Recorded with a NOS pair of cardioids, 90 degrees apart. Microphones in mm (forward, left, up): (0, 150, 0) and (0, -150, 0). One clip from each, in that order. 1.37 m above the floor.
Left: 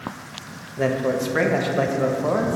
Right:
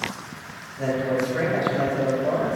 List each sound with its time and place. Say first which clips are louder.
0.8 s a man speaking: left 2 dB; 60° left, 0.7 m